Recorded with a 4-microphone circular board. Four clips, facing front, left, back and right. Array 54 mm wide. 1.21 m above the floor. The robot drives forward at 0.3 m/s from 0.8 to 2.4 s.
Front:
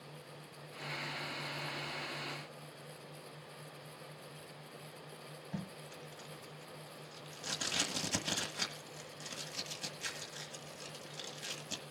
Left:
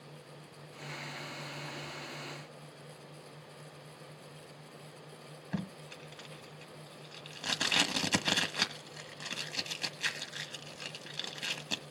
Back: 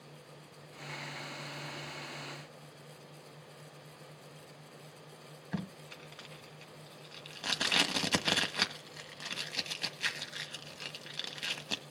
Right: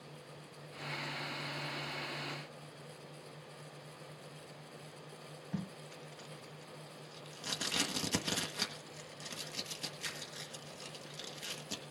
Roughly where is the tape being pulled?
Behind left.